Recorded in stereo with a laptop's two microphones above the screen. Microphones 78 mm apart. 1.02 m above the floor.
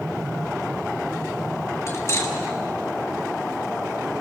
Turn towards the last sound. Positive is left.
turn(degrees=40)  # may be behind; listen again after turning